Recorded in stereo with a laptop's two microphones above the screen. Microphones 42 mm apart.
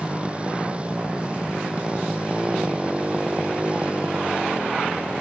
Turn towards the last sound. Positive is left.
turn(degrees=-30)  # may be behind; listen again after turning